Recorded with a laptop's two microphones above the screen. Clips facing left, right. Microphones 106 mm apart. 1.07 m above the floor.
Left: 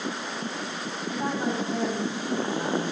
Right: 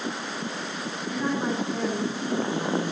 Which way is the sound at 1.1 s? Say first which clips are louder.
Right 1 dB; 55° left (ahead or behind).